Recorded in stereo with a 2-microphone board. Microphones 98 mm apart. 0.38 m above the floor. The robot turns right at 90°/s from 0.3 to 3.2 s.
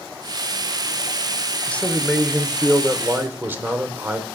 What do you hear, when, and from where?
1.7 s a man speaking: 15° left (ahead or behind), 0.8 m; by 4.3 s 20° right (ahead or behind), 0.8 m